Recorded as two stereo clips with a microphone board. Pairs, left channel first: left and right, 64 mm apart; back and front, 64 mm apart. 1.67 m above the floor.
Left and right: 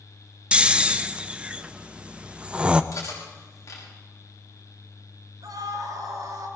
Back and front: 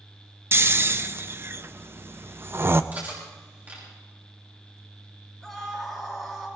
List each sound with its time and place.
0.5 s snoring: 30° right, 0.7 m
2.9 s cutlery clinking: 60° left, 5.5 m
5.4 s a scream: 90° right, 8 m